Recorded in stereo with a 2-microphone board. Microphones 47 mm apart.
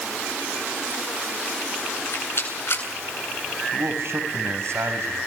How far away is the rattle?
About 8 m.